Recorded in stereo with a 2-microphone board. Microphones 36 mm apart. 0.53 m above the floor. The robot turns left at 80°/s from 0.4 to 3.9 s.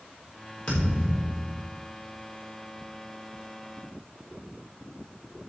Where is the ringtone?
No ringtone in this recording.